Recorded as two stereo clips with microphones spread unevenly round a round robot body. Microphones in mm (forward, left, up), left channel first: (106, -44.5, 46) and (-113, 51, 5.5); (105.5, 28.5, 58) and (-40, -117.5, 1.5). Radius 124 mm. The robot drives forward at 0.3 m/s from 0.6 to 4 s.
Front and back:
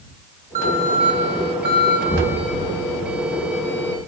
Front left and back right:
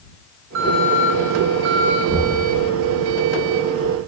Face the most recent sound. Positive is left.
turn(degrees=-100)